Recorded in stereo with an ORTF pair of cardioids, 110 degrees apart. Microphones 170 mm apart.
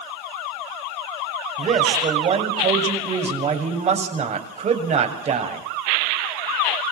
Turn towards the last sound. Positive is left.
turn(degrees=-40)